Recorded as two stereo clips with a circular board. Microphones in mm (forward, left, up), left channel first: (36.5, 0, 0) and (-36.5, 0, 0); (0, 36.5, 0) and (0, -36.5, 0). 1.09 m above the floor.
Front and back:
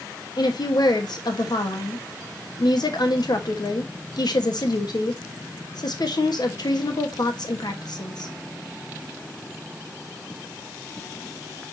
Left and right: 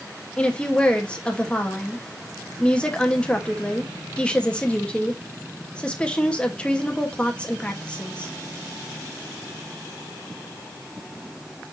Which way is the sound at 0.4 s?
15° left.